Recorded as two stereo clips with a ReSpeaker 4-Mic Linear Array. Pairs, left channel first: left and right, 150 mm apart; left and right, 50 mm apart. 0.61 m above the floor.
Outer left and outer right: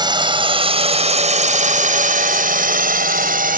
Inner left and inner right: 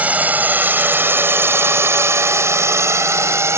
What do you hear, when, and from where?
0.0 s a drone: 30° right (ahead or behind); by 3.6 s 70° right (ahead or behind)